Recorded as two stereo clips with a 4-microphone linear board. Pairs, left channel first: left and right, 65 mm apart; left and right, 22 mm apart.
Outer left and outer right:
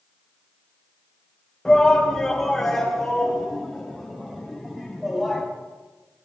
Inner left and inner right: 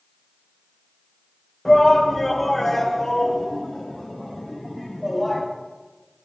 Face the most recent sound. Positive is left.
turn(degrees=0)  # may be behind; listen again after turning